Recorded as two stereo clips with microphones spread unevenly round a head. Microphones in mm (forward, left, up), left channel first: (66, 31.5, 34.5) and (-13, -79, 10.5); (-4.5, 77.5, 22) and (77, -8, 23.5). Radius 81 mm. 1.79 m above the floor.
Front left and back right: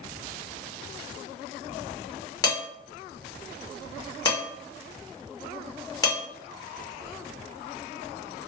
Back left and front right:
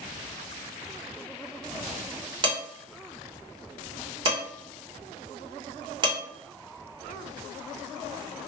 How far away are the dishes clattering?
About 1.8 m.